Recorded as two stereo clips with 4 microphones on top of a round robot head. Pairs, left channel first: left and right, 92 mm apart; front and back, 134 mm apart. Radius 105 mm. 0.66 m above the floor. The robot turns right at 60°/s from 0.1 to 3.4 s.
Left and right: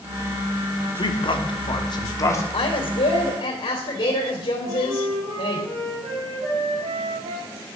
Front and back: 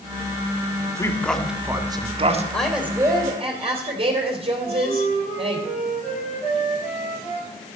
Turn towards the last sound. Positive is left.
turn(degrees=-85)